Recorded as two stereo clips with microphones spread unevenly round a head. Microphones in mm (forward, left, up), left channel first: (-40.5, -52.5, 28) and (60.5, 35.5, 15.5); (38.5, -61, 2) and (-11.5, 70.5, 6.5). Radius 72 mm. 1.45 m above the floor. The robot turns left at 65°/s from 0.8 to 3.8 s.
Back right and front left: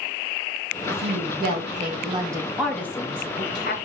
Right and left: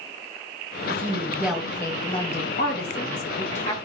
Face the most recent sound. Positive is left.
turn(degrees=-125)